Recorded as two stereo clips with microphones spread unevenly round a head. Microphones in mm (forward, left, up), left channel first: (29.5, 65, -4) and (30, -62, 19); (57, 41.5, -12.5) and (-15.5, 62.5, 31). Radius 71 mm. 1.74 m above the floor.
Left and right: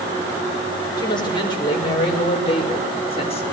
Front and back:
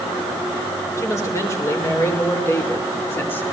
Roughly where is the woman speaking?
Ahead left.